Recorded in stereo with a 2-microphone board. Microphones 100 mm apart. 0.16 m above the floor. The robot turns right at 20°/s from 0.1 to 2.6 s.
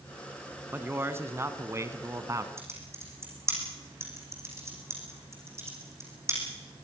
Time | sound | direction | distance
0.7 | a man speaking | 140° right | 1.5 m
2.6 | typing on a keyboard | 25° right (ahead or behind) | 5.5 m